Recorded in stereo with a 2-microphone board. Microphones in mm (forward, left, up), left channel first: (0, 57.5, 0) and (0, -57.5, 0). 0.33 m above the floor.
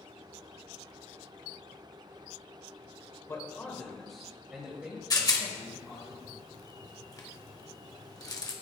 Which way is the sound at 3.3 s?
25° left (ahead or behind).